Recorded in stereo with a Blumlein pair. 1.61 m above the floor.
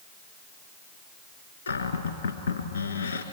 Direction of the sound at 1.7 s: 70° left.